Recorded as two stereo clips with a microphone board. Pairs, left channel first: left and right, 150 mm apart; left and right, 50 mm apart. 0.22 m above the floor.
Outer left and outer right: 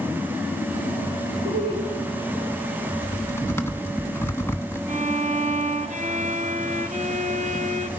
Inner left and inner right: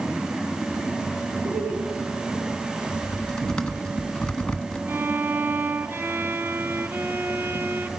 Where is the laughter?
45° right (ahead or behind), 7.5 m.